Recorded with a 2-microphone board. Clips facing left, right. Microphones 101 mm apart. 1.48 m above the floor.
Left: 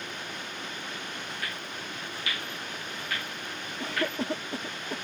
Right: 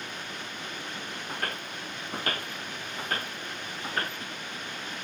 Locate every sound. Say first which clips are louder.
1.3 s footsteps: right 3 dB; 50° right (ahead or behind); by 4.2 s 35° right (ahead or behind)
3.8 s a cough: left 4 dB; 75° left (ahead or behind)